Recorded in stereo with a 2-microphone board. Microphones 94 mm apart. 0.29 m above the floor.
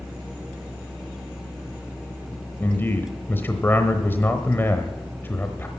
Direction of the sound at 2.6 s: 25° left (ahead or behind).